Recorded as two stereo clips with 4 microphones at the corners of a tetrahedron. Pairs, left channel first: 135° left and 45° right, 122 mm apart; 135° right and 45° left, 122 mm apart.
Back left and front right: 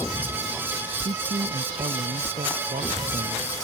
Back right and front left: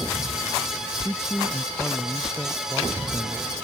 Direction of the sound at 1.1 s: 40° right.